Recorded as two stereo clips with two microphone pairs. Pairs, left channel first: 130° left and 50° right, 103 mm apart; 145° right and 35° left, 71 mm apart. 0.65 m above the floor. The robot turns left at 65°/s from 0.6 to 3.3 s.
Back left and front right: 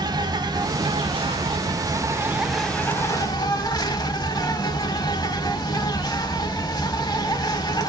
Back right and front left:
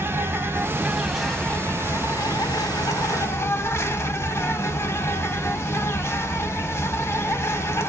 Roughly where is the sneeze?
No sneeze in this recording.